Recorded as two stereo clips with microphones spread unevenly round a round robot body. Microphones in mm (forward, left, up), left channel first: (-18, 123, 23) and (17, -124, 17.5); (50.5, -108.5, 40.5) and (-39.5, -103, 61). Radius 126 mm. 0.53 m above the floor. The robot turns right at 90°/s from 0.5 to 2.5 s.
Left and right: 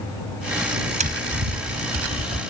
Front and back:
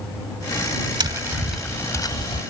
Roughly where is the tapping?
Behind right.